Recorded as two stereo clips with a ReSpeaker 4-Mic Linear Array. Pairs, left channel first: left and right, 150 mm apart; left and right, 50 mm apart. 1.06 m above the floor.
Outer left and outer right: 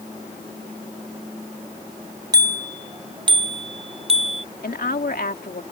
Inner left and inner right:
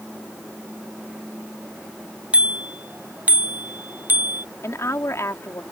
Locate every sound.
2.3 s a bicycle bell: 25° right (ahead or behind); by 4.5 s 45° right (ahead or behind)
4.6 s a woman speaking: 80° left